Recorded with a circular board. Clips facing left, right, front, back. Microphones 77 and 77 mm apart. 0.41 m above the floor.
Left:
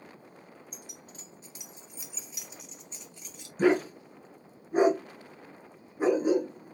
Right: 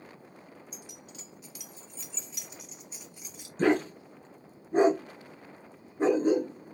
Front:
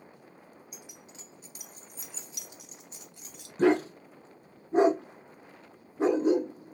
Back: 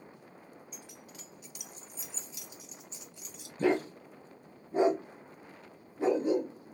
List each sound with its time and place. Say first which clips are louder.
0.7 s keys jangling: right 1 dB, even; 75° left, 1.0 m; by 3.5 s 15° right, 1.7 m
3.6 s a dog barking: left 1 dB, front 5 dB; 5° left, 1.2 m